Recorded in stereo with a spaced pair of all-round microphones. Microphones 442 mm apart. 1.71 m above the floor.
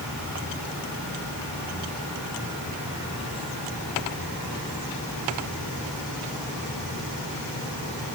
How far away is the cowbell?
I don't hear a cowbell.